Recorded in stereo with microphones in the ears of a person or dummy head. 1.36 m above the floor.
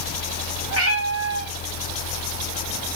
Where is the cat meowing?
80° right, 4 m.